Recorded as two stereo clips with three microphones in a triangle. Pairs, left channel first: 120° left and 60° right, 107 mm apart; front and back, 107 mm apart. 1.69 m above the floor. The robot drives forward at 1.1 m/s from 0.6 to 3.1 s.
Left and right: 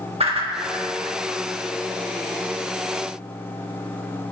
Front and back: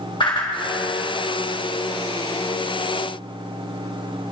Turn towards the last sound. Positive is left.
turn(degrees=-135)